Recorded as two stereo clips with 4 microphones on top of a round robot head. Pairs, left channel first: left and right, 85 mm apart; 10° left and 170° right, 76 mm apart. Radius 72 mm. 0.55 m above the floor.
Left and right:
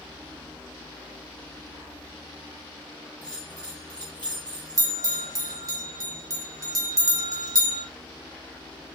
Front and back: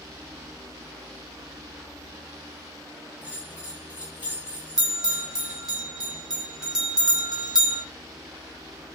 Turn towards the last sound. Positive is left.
turn(degrees=-90)